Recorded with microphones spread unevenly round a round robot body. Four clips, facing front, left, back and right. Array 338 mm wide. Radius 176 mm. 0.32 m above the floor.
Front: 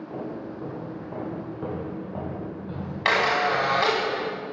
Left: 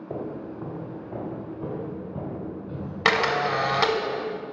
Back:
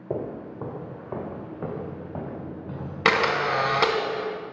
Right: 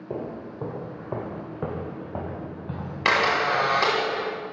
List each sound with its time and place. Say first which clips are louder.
0.1 s footsteps: even, back 5 dB; 165° right, 1.2 m; by 3.1 s 85° right, 3.5 m
3.0 s a camera shutter: right 1 dB, even; 160° left, 0.7 m